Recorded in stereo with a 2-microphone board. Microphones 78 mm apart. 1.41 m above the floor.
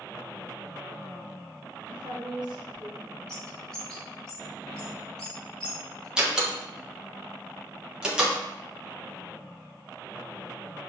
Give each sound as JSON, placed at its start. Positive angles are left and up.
{"t": 1.9, "sound": "a woman speaking", "side_deg": -75, "distance_m": 0.7}
{"t": 3.3, "sound": "a bird", "side_deg": 10, "distance_m": 1.2}
{"t": 6.2, "sound": "a door slam", "side_deg": -10, "distance_m": 0.8}